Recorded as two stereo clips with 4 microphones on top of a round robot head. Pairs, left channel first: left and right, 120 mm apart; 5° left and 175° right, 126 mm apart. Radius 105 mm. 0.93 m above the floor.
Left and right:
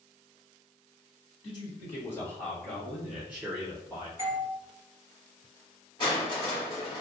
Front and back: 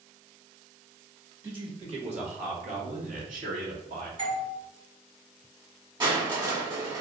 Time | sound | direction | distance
1.4 | a man speaking | 135° left | 1.1 m
4.2 | a doorbell | 155° right | 1.7 m
6.0 | crushing | 140° left | 1.4 m